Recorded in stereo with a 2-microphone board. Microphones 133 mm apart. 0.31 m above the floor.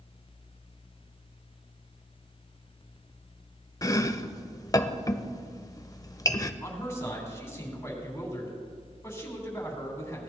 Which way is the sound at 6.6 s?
20° left (ahead or behind).